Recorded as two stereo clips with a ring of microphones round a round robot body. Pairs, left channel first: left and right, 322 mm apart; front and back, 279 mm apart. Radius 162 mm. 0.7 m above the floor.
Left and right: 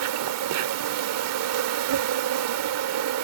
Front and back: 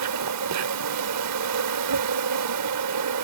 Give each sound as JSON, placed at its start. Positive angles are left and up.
{"t": 0.0, "sound": "an insect", "azimuth_deg": -135}